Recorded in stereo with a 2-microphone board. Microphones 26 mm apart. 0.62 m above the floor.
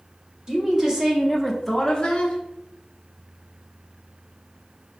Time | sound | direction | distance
0.5 | a woman speaking | 25° right (ahead or behind) | 1.1 m